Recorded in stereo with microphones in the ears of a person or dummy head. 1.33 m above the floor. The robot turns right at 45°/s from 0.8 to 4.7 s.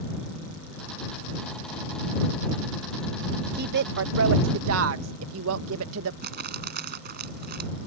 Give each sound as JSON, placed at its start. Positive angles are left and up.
{"t": 3.5, "sound": "a woman speaking", "side_deg": -45}
{"t": 6.2, "sound": "crumpling", "side_deg": -50}